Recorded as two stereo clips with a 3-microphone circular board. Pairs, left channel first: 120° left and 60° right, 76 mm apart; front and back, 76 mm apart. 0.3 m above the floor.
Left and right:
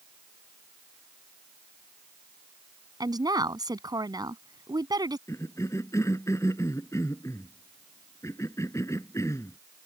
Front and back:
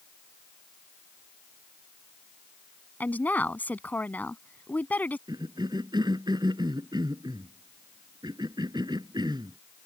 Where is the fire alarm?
No fire alarm in this recording.